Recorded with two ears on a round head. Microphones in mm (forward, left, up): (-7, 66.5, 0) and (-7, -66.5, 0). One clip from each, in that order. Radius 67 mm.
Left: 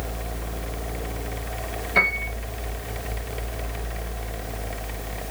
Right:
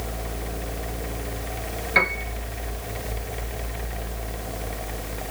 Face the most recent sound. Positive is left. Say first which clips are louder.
# left 1 dB
turn(degrees=-30)  # may be behind; listen again after turning